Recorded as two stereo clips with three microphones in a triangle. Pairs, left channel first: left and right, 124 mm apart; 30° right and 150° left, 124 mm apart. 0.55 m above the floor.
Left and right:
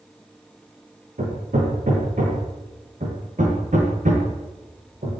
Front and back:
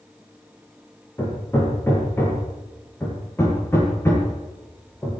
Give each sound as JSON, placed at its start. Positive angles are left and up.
{"t": 1.2, "sound": "hammering", "azimuth_deg": -100, "distance_m": 7.0}